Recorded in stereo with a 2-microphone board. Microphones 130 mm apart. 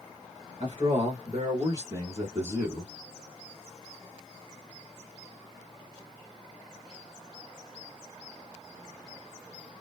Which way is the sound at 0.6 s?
35° right (ahead or behind).